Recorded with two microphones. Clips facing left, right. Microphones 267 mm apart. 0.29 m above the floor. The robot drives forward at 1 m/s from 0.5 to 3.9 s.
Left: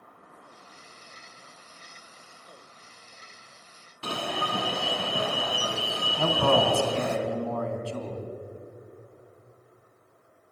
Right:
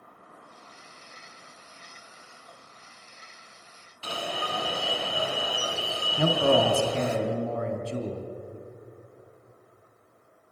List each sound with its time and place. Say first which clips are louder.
4.0 s an alarm: left 2 dB; 60° left (ahead or behind), 2 m
6.2 s a man speaking: right 2 dB; 20° right (ahead or behind), 2.5 m